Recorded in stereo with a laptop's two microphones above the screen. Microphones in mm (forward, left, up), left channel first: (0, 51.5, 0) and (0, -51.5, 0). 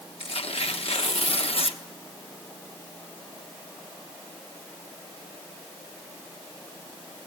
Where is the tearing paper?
80° left, 1.1 m.